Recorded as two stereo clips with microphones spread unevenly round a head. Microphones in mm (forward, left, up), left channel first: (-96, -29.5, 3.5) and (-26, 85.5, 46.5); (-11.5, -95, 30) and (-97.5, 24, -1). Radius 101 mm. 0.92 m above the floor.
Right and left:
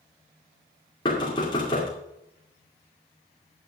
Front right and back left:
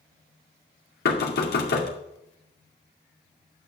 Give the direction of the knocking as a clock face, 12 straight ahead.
2 o'clock.